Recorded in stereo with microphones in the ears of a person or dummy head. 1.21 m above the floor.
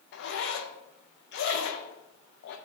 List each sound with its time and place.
0.1 s a zipper: 70° left (ahead or behind), 0.5 m